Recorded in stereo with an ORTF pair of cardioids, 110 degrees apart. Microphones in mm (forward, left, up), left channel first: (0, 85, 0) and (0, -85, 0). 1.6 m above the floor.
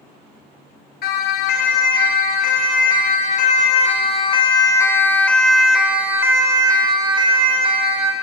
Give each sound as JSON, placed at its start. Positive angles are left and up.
{"t": 1.0, "sound": "a siren", "azimuth_deg": 70, "distance_m": 5.0}